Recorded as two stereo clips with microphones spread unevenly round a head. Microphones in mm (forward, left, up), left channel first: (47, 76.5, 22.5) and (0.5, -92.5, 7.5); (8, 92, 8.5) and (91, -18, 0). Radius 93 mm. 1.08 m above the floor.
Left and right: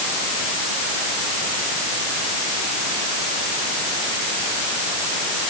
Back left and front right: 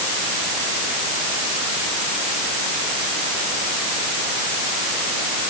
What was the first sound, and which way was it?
Only background noise.